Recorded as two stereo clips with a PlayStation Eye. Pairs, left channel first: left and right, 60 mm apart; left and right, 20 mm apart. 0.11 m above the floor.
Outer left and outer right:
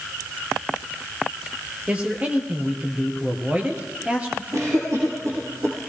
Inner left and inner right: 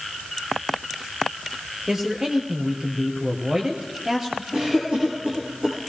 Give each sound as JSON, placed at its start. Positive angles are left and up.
{"t": 1.9, "sound": "a man speaking", "side_deg": -20, "distance_m": 2.5}
{"t": 4.5, "sound": "a cough", "side_deg": -60, "distance_m": 5.0}